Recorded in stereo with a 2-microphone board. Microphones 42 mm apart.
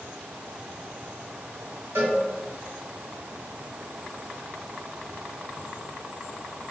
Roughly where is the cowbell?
Right.